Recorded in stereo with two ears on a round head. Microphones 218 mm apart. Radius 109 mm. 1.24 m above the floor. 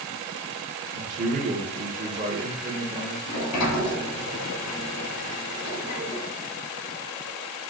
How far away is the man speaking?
About 1.1 m.